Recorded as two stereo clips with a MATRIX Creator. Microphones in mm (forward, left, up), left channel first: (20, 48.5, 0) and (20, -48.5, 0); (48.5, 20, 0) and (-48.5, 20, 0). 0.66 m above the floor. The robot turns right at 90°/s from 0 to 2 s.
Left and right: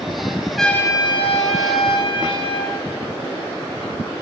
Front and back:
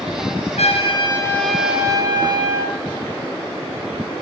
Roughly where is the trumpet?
Ahead.